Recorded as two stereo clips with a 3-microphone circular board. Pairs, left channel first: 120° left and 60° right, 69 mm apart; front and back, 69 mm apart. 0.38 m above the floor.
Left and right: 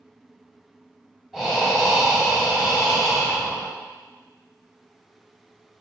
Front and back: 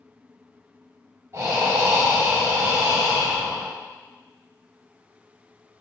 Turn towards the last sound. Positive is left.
turn(degrees=-145)